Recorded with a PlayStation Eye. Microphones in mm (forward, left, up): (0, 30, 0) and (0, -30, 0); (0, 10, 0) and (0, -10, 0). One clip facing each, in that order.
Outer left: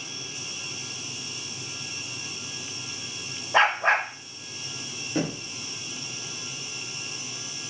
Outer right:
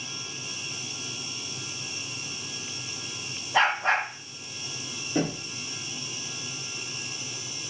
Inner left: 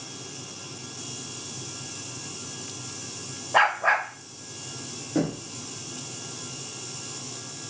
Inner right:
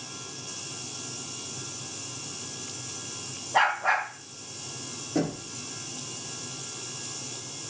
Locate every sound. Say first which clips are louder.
3.5 s a dog barking: outer left 2 dB, inner left 3 dB; 55° left (ahead or behind), 2 m
5.2 s knocking: outer right 1 dB, inner left 2 dB; 5° left (ahead or behind), 1.2 m